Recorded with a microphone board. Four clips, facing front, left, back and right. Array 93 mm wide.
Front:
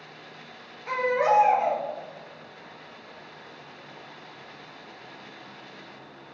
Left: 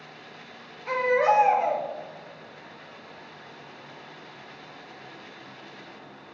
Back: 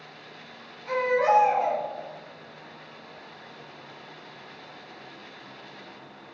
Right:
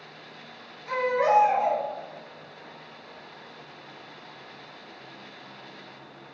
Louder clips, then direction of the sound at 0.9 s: Left 1 dB, back 1 dB; 55° left.